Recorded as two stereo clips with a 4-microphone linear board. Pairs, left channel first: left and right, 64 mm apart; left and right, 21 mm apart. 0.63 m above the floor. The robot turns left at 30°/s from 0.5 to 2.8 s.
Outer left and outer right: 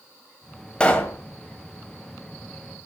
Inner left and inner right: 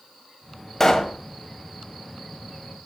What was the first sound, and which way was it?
A pop, 15° left (ahead or behind).